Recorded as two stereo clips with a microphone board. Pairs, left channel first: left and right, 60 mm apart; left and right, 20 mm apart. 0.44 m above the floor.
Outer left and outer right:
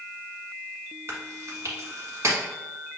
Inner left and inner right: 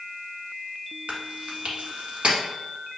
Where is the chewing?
50° right (ahead or behind), 1.4 m.